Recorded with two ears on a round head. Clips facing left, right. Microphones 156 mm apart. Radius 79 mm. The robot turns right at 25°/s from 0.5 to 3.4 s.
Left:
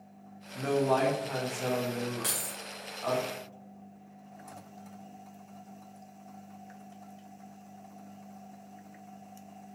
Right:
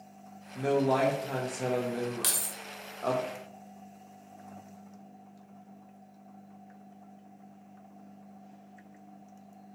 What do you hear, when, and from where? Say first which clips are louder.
0.6 s a man speaking: right 1 dB; 165° right, 0.6 m; by 3.2 s 95° right, 0.6 m
2.2 s keys jangling: left 1 dB; 45° right (ahead or behind), 0.7 m; by 2.6 s 50° right (ahead or behind), 0.7 m